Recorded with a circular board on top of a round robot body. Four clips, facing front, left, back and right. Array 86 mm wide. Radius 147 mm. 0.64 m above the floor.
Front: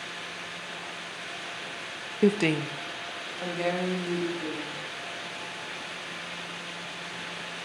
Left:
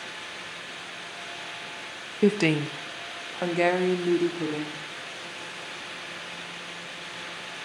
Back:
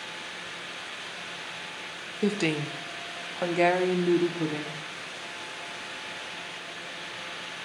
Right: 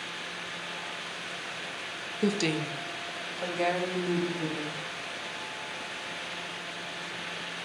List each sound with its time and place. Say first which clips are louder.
2.2 s a woman speaking: left 6 dB, front 4 dB; 45° left, 1.1 m; by 4.8 s 140° left, 3 m